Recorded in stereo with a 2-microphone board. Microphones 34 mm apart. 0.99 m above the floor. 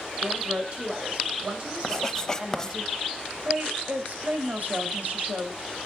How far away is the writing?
About 1.0 m.